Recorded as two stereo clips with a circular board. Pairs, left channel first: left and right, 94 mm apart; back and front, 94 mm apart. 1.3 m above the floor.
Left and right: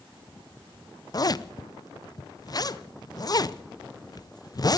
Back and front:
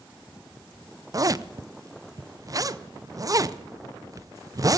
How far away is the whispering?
No whispering in this recording.